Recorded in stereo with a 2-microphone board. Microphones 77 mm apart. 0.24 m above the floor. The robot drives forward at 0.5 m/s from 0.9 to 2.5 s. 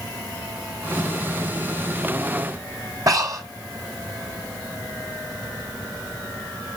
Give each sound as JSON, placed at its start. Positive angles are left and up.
{"t": 3.1, "sound": "breathing", "side_deg": -45, "distance_m": 1.2}